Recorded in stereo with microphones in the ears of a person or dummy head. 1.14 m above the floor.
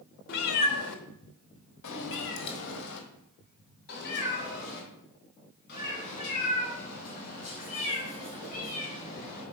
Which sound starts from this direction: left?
A cat meowing, at 0.3 s.